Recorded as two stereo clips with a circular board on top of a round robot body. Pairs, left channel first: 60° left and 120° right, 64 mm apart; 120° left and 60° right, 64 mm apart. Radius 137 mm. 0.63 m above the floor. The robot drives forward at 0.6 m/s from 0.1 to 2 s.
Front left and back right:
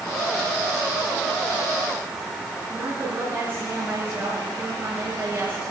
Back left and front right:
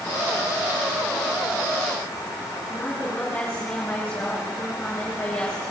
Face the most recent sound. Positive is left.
turn(degrees=-175)